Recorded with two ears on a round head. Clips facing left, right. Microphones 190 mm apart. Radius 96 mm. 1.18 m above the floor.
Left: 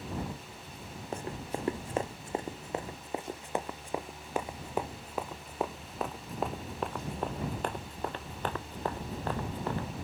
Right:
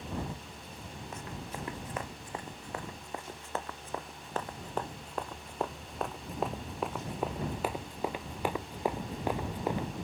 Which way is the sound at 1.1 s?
30° left (ahead or behind).